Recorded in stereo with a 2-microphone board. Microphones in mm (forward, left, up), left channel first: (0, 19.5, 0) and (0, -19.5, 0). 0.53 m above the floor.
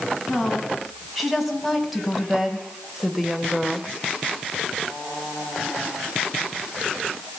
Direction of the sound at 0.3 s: Centre (ahead or behind).